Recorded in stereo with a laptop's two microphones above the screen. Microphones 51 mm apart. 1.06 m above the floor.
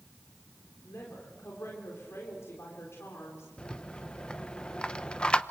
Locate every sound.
0.8 s a woman speaking: 70° left (ahead or behind), 4 m
3.6 s a rattle: 15° left (ahead or behind), 0.9 m